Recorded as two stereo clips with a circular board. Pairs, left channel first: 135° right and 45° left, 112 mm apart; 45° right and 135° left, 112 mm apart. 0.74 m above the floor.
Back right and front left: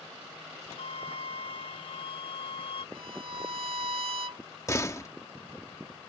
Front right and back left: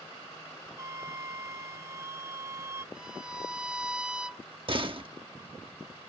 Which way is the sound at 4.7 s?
165° left.